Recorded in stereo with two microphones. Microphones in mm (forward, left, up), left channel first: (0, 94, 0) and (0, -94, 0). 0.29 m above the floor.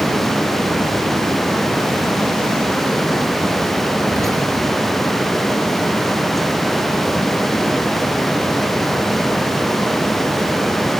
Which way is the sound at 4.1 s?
15° right (ahead or behind).